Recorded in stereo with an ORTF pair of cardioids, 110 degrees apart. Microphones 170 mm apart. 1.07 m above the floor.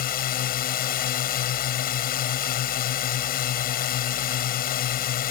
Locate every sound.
0.0 s a drone: 60° left